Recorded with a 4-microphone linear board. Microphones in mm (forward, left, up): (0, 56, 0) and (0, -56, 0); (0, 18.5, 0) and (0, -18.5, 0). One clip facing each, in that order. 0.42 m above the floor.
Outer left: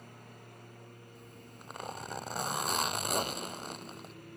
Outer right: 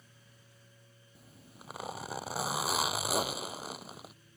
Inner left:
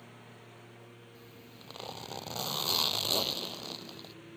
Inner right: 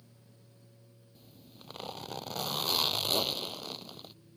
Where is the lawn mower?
55° left (ahead or behind); by 4.4 s 60° left (ahead or behind).